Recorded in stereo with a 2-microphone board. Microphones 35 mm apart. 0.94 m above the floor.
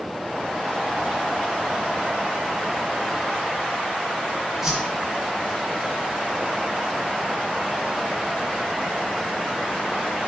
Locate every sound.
4.6 s a whoosh: 10° right (ahead or behind), 5.5 m